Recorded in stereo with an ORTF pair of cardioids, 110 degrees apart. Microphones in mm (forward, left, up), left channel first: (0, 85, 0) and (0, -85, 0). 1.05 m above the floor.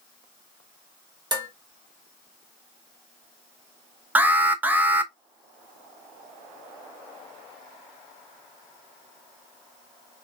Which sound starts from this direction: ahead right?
Dishes clattering, at 1.3 s.